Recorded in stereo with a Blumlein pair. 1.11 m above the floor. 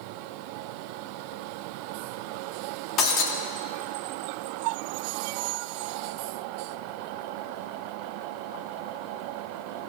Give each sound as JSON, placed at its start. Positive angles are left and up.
{"t": 3.0, "sound": "breaking glass", "azimuth_deg": 30, "distance_m": 1.4}